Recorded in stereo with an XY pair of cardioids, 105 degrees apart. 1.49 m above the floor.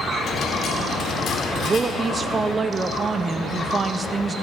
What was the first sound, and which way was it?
A dropped coin, 65° left.